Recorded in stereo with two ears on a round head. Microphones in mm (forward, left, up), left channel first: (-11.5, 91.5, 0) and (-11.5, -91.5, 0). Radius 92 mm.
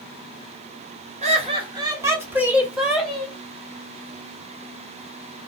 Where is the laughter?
35° right (ahead or behind), 1.0 m; by 3.3 s 5° left (ahead or behind), 1.6 m.